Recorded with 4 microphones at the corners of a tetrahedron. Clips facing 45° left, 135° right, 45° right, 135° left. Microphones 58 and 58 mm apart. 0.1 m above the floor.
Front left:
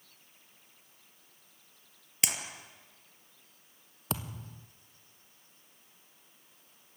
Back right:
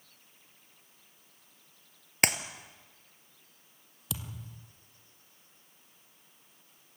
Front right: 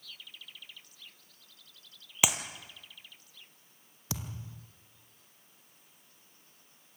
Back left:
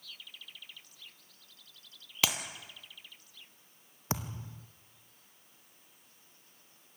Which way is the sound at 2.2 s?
120° right.